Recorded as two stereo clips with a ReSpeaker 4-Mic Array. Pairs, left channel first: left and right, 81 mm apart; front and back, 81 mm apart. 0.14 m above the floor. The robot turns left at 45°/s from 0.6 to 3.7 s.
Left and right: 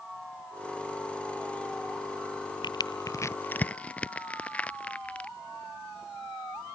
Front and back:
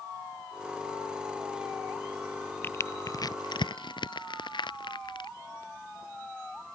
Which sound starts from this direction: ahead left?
Crushing, at 2.6 s.